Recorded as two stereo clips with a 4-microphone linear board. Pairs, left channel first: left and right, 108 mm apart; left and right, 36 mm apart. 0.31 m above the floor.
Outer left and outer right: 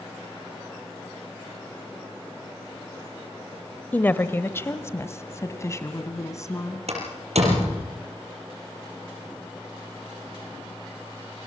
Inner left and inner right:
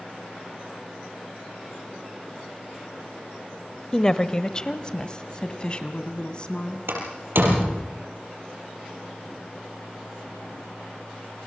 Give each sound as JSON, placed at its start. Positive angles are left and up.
{"t": 3.9, "sound": "a woman speaking", "side_deg": 15, "distance_m": 0.9}
{"t": 6.9, "sound": "a door slam", "side_deg": -80, "distance_m": 5.0}